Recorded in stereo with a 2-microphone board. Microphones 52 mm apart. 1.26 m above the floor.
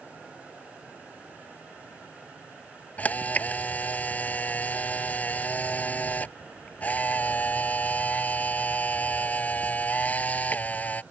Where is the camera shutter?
30° left (ahead or behind).